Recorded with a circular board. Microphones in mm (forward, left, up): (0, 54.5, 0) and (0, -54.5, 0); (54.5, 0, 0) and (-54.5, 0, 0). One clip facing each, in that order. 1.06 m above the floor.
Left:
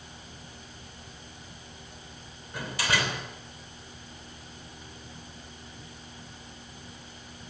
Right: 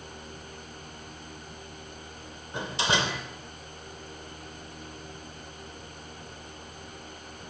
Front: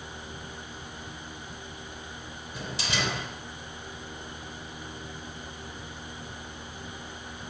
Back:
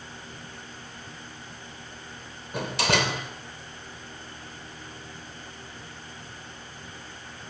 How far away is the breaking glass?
I don't hear breaking glass.